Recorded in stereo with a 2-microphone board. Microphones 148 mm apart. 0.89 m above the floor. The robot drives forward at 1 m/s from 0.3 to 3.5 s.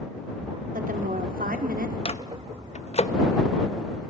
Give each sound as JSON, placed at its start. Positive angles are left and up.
{"t": 0.7, "sound": "a woman speaking", "side_deg": -65, "distance_m": 3.0}
{"t": 2.0, "sound": "a microwave", "side_deg": 40, "distance_m": 1.0}